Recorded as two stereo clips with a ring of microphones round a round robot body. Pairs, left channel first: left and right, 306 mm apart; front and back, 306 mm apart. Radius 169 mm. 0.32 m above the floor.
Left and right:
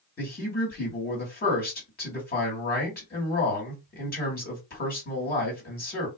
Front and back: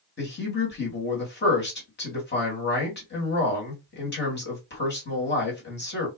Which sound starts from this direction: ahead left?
A man speaking, at 0.2 s.